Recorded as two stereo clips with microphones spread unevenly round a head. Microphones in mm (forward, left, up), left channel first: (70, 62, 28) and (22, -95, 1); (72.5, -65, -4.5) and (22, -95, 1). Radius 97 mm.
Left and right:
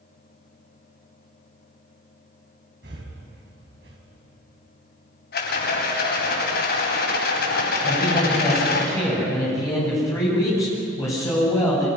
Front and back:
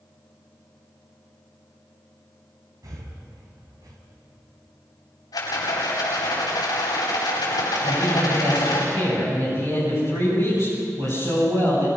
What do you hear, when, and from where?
2.8 s breathing: 150° right, 3.5 m
5.3 s a rattle: 60° left, 9 m
7.8 s a man speaking: 145° left, 9 m